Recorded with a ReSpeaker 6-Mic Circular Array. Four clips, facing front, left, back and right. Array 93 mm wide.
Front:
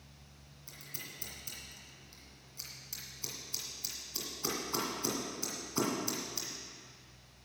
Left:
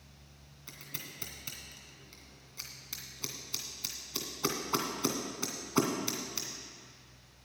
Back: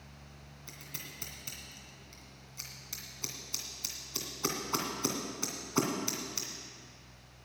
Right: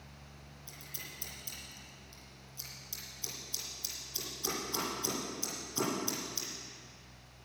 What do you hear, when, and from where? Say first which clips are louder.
0.7 s scissors: left 4 dB, back 1 dB; 125° left, 2 m